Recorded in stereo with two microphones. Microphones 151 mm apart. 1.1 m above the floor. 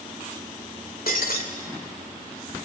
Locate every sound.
1.1 s breaking glass: 80° left, 2 m